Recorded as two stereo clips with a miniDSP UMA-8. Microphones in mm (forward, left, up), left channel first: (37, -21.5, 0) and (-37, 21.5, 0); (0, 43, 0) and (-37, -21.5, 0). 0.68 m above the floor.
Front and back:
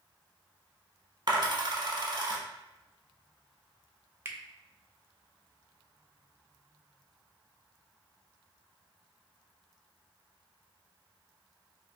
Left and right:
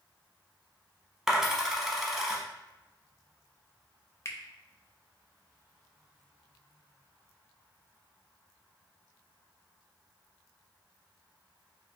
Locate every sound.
1.3 s a dropped coin: 155° left, 0.8 m
4.2 s a finger snap: 95° left, 0.5 m